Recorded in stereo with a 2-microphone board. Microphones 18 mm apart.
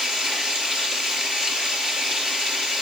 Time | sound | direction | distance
0.0 | running water | 35° right (ahead or behind) | 3.5 m